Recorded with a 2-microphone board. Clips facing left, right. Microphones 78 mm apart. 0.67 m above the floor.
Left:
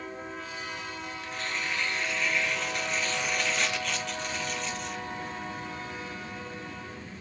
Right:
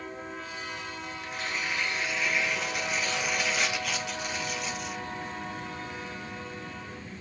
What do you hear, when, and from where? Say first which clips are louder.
1.2 s tearing paper: right 1 dB; 5° right (ahead or behind), 1.0 m